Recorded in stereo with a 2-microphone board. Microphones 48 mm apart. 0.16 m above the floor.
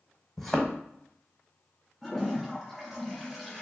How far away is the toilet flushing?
About 1.6 m.